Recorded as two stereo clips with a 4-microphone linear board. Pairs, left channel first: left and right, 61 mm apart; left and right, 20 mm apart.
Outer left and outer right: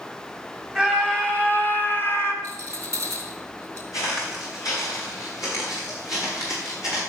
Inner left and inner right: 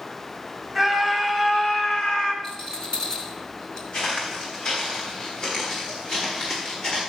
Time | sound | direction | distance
0.8 | a scream | 5° left (ahead or behind) | 1.4 m
2.4 | a rattle | 50° left (ahead or behind) | 3.5 m
3.9 | footsteps | 65° left (ahead or behind) | 6 m